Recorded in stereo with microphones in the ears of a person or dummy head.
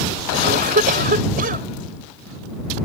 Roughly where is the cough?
Right.